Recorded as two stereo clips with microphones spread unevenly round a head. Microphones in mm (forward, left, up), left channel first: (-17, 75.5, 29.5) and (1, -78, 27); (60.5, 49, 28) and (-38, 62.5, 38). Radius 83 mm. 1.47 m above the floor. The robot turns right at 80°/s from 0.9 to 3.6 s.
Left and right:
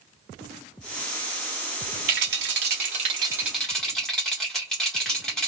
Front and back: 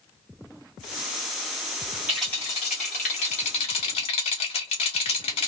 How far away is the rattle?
About 0.9 m.